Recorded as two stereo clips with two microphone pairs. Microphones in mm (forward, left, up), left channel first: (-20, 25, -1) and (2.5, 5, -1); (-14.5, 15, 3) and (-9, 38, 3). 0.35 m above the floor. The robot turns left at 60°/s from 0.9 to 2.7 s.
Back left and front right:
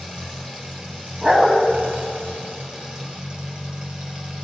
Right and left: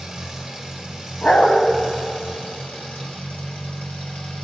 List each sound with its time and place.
0.0 s an engine running: 10° left, 2 m; by 4.5 s 100° right, 2 m
1.2 s a dog barking: 100° right, 0.9 m; by 1.6 s 125° right, 0.9 m